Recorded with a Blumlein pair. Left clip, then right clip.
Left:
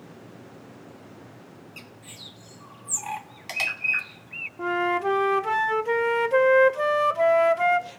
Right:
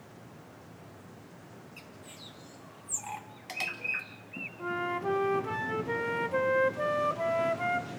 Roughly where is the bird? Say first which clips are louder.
Left 7 dB; ahead left.